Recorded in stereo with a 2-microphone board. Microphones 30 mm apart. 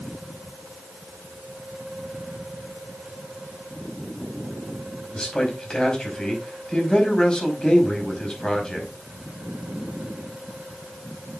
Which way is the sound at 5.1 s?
25° left (ahead or behind).